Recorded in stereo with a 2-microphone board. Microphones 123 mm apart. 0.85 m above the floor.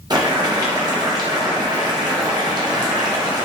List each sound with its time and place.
0.1 s boiling: 35° right (ahead or behind), 0.6 m